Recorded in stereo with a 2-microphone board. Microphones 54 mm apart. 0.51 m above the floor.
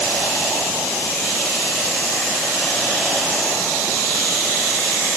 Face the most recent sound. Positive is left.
No sound to turn to.